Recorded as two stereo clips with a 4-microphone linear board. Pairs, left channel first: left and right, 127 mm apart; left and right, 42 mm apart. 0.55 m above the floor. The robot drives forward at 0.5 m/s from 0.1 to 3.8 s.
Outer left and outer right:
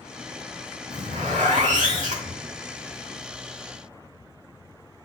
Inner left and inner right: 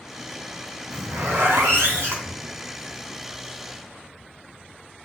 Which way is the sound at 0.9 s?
85° right.